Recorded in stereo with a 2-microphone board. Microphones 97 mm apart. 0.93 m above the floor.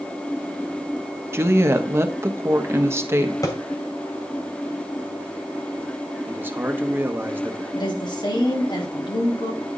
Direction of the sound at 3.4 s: 35° left (ahead or behind).